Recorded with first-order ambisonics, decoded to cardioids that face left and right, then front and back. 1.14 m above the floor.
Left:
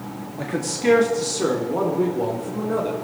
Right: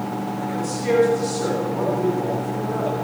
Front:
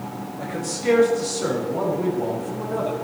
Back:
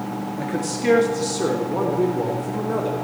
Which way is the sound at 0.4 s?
125° left.